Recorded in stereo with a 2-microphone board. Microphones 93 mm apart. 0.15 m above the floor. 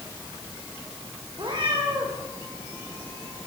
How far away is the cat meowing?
About 6.5 m.